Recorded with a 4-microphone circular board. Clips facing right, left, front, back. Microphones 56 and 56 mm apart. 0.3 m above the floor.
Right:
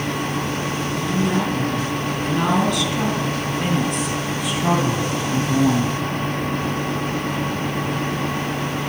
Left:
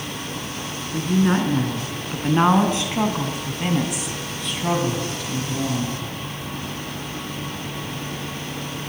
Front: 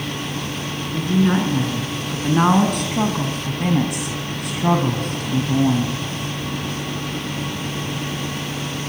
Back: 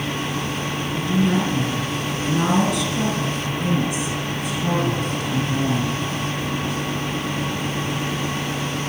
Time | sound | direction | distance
0.9 | a woman speaking | 55° left | 4.5 m